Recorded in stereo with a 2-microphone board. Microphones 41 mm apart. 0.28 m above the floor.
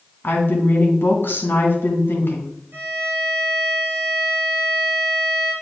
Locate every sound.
0.2 s a woman speaking: 60° left (ahead or behind), 2 m
2.7 s a violin: 50° right (ahead or behind), 3 m